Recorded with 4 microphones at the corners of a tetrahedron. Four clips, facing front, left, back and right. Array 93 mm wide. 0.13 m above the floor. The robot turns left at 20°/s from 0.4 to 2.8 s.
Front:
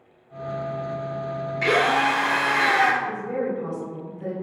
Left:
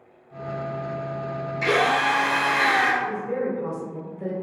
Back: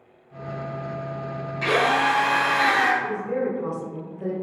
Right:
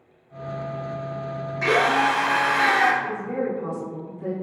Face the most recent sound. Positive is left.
turn(degrees=165)